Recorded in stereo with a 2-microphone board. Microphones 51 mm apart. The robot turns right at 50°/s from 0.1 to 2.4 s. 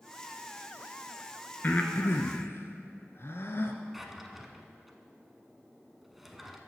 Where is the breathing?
35° left (ahead or behind), 0.8 m; by 3.8 s 60° left (ahead or behind), 0.8 m.